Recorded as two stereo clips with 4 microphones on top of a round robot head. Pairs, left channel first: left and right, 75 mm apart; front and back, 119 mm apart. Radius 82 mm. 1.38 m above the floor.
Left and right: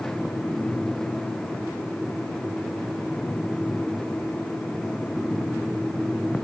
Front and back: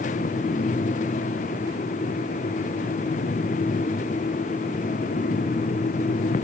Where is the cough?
I don't hear a cough.